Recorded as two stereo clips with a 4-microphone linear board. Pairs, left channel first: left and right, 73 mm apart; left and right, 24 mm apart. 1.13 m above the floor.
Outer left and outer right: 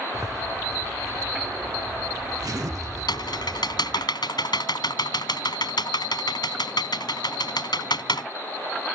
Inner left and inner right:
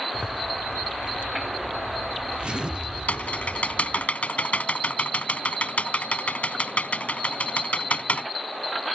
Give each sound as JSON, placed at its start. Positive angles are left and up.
{"t": 0.1, "sound": "a zipper", "side_deg": -55}
{"t": 3.1, "sound": "typing on a keyboard", "side_deg": 80}